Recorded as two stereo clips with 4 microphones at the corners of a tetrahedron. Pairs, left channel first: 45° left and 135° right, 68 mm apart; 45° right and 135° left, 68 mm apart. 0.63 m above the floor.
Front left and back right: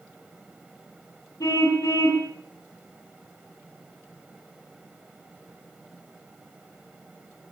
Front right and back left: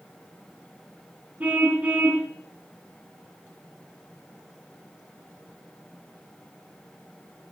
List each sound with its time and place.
1.4 s a car horn: 70° left, 3 m